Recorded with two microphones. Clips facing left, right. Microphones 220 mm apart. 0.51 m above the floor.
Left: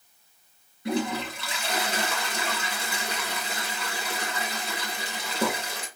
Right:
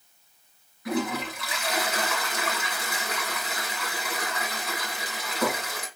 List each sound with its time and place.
0.8 s a toilet flushing: 25° left (ahead or behind), 1.7 m